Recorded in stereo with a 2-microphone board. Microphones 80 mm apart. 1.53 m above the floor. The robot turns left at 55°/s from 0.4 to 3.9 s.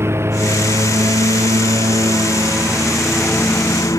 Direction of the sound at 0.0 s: 35° right.